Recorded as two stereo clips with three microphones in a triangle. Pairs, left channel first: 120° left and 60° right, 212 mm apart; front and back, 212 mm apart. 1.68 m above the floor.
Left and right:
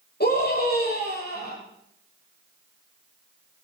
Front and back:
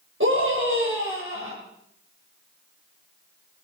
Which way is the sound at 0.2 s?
160° left.